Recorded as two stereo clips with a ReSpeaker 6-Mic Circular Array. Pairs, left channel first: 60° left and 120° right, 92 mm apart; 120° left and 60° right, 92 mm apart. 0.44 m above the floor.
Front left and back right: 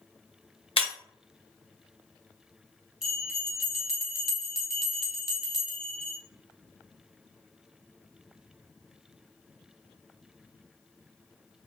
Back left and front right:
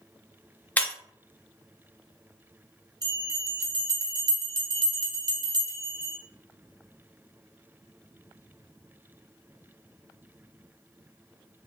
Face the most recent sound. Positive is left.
turn(degrees=-35)